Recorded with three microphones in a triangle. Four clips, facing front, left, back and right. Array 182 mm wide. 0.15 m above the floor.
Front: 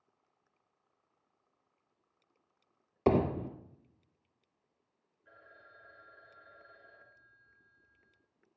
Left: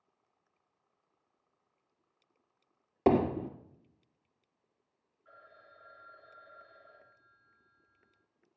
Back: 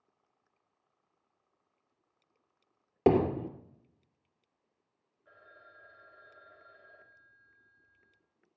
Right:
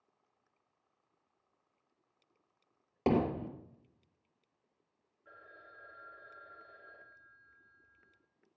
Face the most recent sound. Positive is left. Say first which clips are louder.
# right 1 dB, back 1 dB
turn(degrees=-110)